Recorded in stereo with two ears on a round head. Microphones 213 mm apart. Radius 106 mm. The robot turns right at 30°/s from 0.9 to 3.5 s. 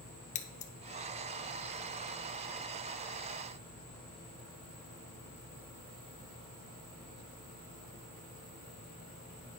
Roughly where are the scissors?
Left.